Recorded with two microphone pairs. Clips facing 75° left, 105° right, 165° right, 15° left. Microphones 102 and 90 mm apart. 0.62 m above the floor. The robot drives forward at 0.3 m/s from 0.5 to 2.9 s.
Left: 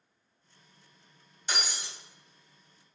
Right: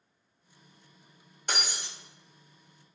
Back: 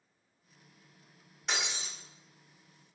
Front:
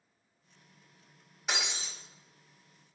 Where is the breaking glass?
75° right, 1.0 m; by 1.9 s 80° right, 1.0 m.